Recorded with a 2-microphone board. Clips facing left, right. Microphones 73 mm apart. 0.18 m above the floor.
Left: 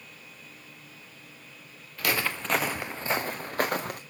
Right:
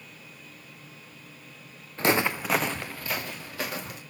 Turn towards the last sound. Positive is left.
turn(degrees=60)  # may be behind; listen again after turning